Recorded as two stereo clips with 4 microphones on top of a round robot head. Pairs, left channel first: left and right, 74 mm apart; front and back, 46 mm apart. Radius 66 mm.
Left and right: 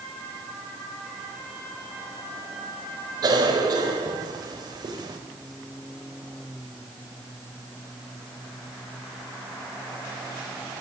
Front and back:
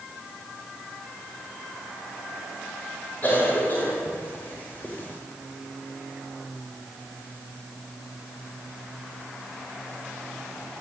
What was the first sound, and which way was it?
A cough, 60° right.